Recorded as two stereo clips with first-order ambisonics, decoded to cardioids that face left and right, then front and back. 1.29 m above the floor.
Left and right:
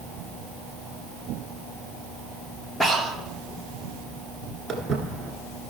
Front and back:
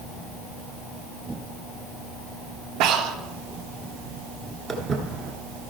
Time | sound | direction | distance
2.8 | breathing | 175° left | 0.9 m
4.7 | footsteps | 140° right | 1.3 m